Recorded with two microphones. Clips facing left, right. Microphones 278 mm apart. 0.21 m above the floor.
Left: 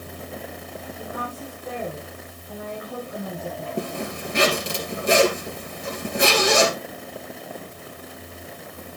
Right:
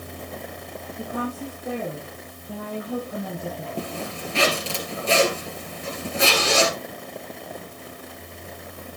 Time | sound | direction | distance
1.0 | a woman speaking | 35° right (ahead or behind) | 6 m
3.8 | a zipper | 15° left (ahead or behind) | 2 m